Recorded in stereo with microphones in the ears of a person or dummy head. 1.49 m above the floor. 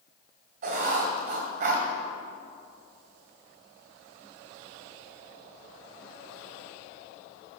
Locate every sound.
0.6 s writing: 45° right (ahead or behind), 1.7 m